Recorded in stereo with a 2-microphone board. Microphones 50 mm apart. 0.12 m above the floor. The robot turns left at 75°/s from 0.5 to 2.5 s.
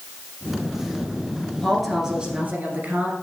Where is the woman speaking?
20° left, 1.5 m; by 3.1 s 50° right, 1.5 m.